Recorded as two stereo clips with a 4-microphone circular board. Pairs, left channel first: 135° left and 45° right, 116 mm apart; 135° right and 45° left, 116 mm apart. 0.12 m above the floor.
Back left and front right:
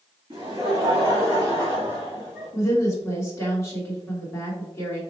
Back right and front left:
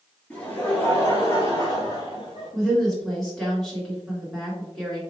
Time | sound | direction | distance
0.3 | laughter | 70° right | 1.9 m
2.5 | a woman speaking | 145° left | 1.7 m